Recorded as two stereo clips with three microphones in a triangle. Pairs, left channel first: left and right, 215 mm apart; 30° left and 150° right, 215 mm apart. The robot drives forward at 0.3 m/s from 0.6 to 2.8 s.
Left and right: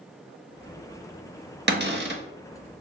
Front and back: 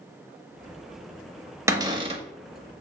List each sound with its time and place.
1.7 s a cupboard door: 75° right, 0.6 m; by 2.2 s 95° right, 0.6 m